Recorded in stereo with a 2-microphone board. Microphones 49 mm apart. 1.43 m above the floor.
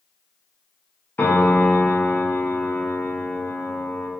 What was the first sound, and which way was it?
A piano, 45° left (ahead or behind).